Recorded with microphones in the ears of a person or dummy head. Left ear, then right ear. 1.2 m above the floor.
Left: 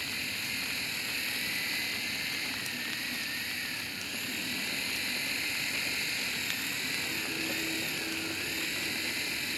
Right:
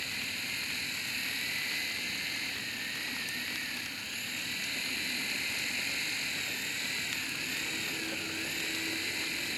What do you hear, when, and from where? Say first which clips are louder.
0.0 s a machine running: left 1 dB; 10° right (ahead or behind)